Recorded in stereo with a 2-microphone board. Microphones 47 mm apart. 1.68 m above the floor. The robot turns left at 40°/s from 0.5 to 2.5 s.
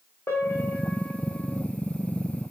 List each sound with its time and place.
0.3 s a piano: 60° left, 3 m; by 1.6 s 20° left, 3 m